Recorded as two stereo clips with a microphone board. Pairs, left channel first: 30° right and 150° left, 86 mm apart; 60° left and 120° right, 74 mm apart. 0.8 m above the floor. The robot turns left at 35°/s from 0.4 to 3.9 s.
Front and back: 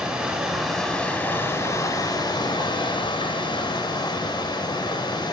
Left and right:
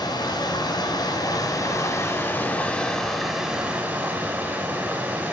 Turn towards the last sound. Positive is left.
turn(degrees=-50)